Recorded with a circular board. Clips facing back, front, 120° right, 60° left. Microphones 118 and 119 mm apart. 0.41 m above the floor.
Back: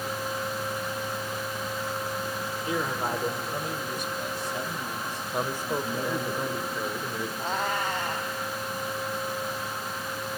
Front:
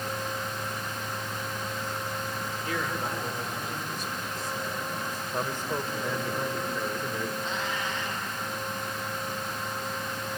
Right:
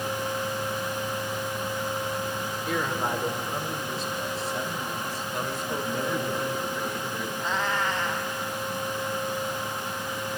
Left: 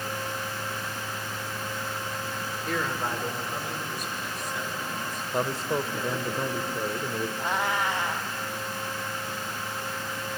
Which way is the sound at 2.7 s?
160° left.